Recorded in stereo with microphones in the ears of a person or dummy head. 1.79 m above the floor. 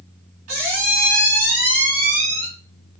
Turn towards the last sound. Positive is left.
turn(degrees=-45)  # may be behind; listen again after turning